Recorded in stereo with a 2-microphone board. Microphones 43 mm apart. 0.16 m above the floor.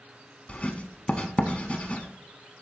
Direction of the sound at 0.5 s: 30° left (ahead or behind).